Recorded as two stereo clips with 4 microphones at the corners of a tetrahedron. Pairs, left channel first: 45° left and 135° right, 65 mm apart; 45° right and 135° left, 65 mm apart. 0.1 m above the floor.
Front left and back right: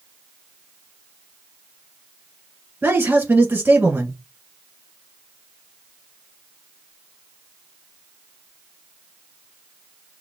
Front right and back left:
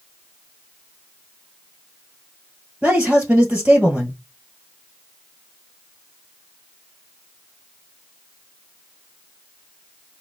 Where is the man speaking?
165° right, 1.4 m.